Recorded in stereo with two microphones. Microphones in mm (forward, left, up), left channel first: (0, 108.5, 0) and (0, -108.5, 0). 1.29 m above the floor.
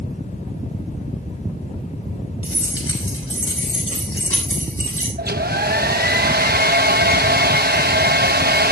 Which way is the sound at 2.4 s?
90° left.